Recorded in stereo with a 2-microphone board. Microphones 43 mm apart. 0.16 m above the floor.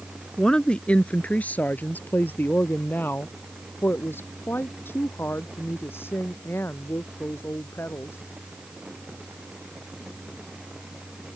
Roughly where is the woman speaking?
Centre.